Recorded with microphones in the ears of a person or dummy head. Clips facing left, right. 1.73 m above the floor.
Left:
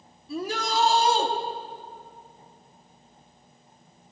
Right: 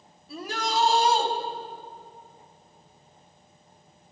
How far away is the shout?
About 5.5 m.